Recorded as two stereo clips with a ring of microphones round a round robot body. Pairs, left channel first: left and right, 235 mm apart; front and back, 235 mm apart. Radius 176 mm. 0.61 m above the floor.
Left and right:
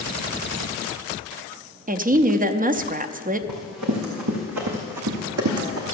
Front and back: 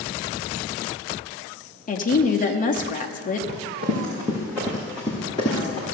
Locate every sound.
1.9 s a woman speaking: 45° right, 0.8 m
3.5 s running footsteps: 115° right, 2.5 m; by 5.9 s 65° right, 2 m